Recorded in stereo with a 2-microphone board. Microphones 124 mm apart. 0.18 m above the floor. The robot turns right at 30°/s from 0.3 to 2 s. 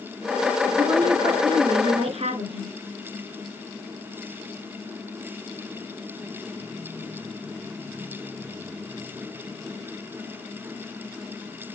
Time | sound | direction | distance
0.8 | a woman speaking | 150° right | 2.5 m